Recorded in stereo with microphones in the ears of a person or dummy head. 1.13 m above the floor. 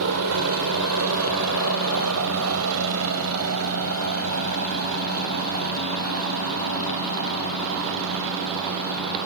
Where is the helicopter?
75° right (ahead or behind).